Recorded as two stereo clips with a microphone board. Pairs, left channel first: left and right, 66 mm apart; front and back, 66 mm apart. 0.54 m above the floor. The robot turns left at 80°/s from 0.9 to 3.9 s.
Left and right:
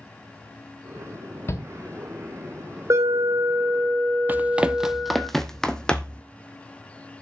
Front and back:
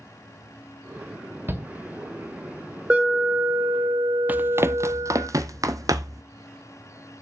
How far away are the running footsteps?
About 0.6 m.